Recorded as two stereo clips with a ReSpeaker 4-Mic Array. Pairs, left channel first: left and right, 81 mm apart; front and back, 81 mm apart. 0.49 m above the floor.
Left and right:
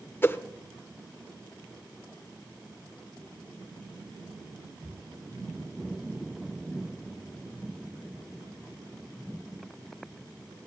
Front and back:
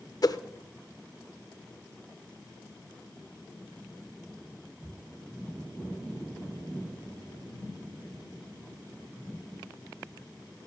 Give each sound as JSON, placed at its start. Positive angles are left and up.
{"t": 0.2, "sound": "a whoosh", "azimuth_deg": 30, "distance_m": 0.5}